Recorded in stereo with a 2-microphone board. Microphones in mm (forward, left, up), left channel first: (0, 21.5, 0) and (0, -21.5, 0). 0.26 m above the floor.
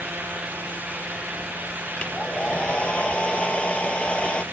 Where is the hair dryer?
30° left (ahead or behind).